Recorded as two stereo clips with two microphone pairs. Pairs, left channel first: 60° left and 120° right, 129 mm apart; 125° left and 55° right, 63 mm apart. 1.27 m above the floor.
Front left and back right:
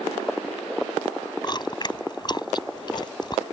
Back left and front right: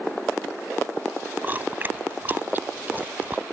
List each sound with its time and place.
1.4 s chewing: 5° left